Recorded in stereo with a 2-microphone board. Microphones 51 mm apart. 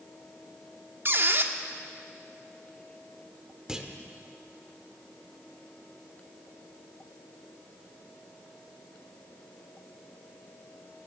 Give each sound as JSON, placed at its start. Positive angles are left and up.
{"t": 1.1, "sound": "a squeak", "side_deg": -45, "distance_m": 0.6}
{"t": 3.7, "sound": "a clunk", "side_deg": -10, "distance_m": 0.9}